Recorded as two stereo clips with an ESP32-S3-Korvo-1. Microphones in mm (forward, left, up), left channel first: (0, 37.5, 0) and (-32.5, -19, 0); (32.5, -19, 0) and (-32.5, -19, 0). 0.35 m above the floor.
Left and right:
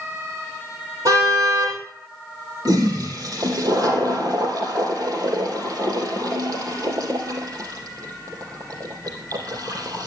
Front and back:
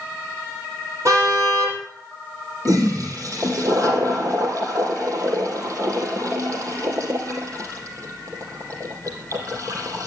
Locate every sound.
1.1 s a car horn: 145° right, 5.5 m
2.6 s a toilet flushing: 145° right, 3 m